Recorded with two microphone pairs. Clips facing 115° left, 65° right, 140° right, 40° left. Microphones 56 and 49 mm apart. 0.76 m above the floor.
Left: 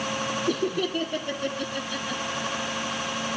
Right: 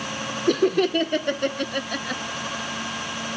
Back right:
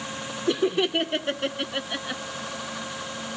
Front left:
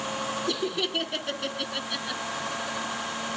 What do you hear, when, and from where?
0.5 s laughter: 80° right, 2 m